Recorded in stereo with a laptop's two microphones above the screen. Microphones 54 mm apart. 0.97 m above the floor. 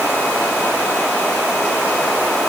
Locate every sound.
Only background noise.